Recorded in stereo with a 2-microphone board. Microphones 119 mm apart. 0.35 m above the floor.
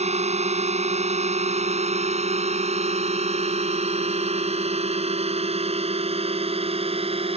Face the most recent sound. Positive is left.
turn(degrees=-55)  # may be behind; listen again after turning